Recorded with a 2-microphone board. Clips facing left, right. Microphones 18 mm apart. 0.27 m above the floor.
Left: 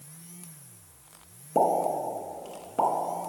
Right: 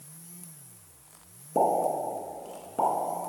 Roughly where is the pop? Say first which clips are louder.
Left 1 dB; left.